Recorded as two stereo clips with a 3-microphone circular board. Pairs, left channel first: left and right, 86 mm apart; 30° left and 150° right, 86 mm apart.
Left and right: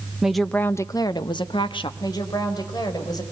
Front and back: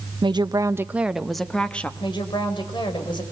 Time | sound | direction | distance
0.2 | a woman speaking | 170° right | 0.8 m
2.0 | a woman speaking | 55° left | 4.5 m